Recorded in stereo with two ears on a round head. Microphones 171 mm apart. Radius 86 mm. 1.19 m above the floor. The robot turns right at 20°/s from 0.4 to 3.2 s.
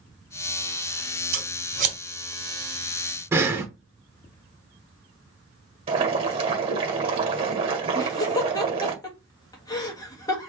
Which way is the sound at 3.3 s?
15° right (ahead or behind).